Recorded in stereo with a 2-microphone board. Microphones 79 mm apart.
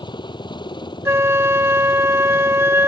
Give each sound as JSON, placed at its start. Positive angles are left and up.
{"t": 0.0, "sound": "a helicopter", "side_deg": 70}
{"t": 1.1, "sound": "a flute", "side_deg": -35}